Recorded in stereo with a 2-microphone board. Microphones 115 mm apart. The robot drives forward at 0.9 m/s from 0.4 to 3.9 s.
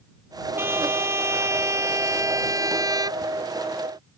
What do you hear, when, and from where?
0.6 s a trumpet: 20° right (ahead or behind); by 3.2 s 35° right (ahead or behind)